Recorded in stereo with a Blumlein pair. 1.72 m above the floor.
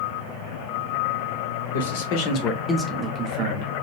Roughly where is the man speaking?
Ahead left.